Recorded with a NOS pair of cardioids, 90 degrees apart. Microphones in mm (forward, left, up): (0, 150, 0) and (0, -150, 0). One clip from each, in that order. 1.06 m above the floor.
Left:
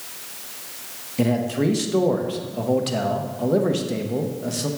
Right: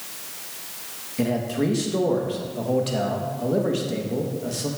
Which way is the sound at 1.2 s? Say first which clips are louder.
Left 2 dB; 15° left.